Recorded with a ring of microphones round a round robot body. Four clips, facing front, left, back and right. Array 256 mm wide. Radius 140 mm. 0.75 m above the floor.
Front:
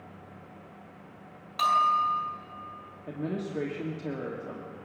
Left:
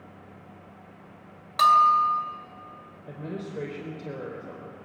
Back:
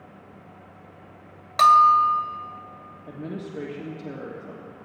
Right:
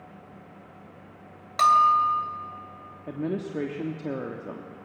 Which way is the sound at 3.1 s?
80° right.